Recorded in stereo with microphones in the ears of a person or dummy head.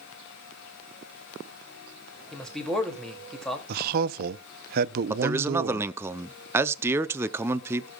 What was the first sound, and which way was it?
A man speaking, 5° left (ahead or behind).